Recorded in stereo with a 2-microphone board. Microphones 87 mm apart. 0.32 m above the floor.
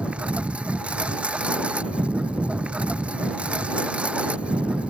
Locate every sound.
0.0 s a lawn mower: 15° right (ahead or behind)